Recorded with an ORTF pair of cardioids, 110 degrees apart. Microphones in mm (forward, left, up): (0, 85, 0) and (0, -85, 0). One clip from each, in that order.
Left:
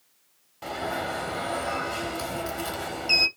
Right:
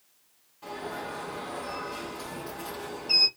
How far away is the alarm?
About 1.7 m.